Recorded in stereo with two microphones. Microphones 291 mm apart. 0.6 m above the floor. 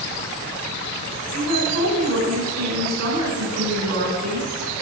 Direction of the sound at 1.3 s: 60° right (ahead or behind).